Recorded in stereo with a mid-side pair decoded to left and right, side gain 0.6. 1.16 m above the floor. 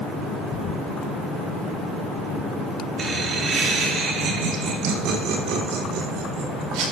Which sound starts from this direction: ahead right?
Laughter, at 3.0 s.